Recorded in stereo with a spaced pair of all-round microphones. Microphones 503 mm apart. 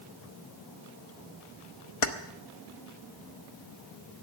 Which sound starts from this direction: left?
Keys jangling, at 2.0 s.